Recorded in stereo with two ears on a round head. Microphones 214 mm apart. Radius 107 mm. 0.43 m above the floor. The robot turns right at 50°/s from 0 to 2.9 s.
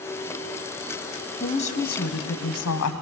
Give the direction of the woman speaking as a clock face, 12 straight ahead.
11 o'clock.